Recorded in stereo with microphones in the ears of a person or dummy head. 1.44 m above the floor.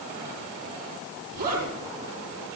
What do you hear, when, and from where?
1.3 s a zipper: 45° right (ahead or behind), 9.5 m